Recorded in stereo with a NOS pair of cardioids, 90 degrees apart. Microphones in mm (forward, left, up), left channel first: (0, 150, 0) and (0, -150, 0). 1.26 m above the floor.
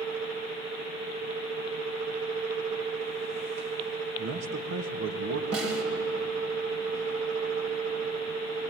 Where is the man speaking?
70° right, 1.7 m.